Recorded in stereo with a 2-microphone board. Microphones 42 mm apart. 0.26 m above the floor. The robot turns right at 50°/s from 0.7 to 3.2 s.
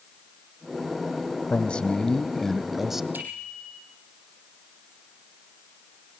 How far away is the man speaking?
About 1.4 m.